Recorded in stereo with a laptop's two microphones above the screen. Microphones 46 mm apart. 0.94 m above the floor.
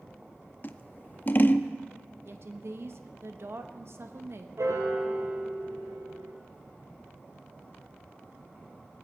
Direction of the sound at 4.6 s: 85° right.